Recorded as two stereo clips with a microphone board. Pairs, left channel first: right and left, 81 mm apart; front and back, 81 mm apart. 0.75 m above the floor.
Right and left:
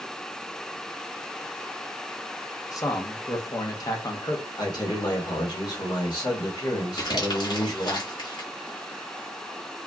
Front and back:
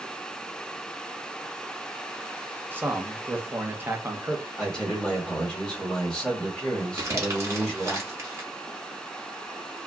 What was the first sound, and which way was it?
A man speaking, 120° right.